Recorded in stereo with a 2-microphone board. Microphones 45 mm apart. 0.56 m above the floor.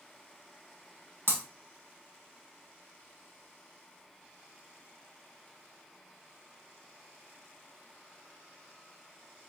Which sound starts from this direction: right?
Breaking glass, at 1.3 s.